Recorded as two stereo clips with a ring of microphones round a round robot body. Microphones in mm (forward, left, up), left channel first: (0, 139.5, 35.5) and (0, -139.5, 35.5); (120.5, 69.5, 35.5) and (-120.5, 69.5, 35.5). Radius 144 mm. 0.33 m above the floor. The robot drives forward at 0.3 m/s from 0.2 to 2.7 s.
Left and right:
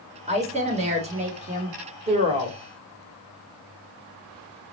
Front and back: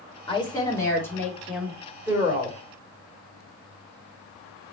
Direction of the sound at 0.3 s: 50° right.